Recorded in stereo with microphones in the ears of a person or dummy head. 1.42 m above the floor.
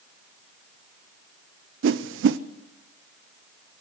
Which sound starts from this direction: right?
A whoosh, at 1.8 s.